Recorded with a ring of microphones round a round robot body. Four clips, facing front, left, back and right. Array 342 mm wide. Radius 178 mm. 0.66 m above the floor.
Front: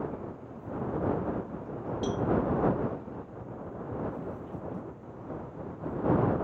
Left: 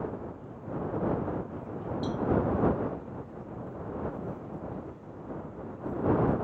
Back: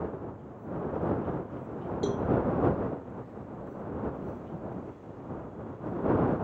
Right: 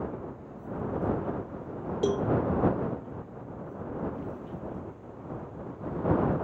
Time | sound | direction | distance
2.0 | a cowbell | 105° right | ?